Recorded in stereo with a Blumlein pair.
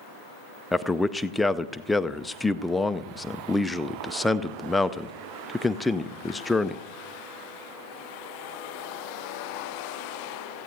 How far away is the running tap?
I don't hear a running tap.